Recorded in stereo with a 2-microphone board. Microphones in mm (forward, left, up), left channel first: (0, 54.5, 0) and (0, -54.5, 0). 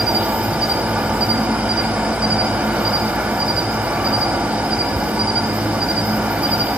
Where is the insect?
10° right (ahead or behind), 1.2 m.